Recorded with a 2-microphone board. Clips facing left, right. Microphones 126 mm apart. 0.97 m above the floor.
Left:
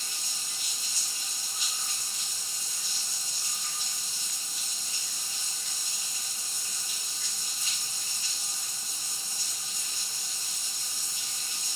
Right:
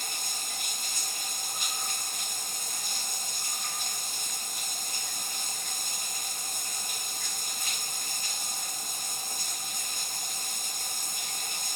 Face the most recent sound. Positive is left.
turn(degrees=-55)  # may be behind; listen again after turning